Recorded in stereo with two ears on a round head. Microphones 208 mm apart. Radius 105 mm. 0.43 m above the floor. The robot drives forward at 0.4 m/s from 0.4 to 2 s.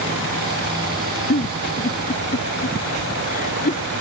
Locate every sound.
1.3 s a giggle: 40° left (ahead or behind); by 3.8 s 35° left (ahead or behind)